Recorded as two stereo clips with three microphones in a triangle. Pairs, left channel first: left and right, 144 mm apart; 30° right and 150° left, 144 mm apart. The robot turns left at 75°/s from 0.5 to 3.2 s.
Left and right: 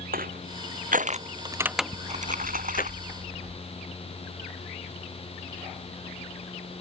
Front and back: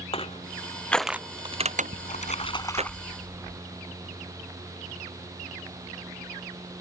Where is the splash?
40° right; by 3.6 s 135° right.